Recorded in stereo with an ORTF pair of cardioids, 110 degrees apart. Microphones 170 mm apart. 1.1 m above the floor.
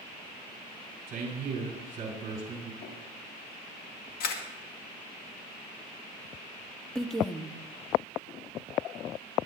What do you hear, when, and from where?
1.1 s a man speaking: 50° right, 4 m
2.8 s tapping: 65° left, 7 m
4.2 s a camera shutter: 65° left, 1.9 m
7.0 s a woman speaking: straight ahead, 1.5 m